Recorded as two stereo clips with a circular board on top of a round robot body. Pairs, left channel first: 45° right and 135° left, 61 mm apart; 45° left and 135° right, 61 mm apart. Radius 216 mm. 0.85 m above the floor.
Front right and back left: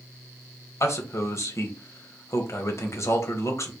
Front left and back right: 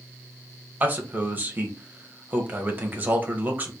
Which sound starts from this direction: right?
A man speaking, at 0.8 s.